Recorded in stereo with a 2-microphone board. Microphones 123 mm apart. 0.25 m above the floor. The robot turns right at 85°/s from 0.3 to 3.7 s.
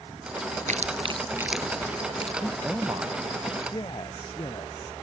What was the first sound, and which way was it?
Chewing, 75° right (ahead or behind).